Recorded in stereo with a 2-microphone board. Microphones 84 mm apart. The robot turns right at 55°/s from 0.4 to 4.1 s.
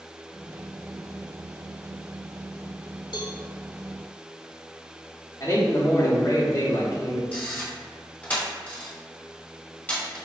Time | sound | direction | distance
3.1 | a cowbell | 60° left (ahead or behind) | 0.8 m
5.4 | a man speaking | 40° left (ahead or behind) | 1.3 m
7.3 | a camera shutter | 20° left (ahead or behind) | 1.4 m